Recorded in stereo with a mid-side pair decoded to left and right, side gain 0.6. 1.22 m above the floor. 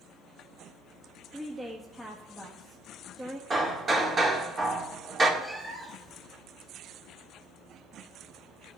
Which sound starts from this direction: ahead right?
Hammering, at 3.5 s.